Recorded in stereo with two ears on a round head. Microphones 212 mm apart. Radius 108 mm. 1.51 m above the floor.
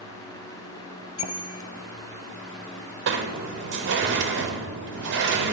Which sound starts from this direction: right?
A sliding door, at 3.1 s.